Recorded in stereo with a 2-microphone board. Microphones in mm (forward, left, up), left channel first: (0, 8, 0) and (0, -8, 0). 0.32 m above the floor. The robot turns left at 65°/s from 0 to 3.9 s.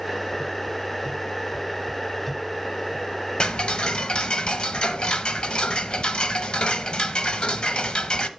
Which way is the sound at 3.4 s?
115° left.